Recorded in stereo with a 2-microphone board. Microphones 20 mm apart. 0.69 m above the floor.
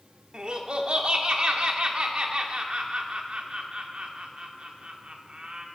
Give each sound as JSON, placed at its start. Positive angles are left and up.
{"t": 0.3, "sound": "laughter", "side_deg": -50, "distance_m": 1.3}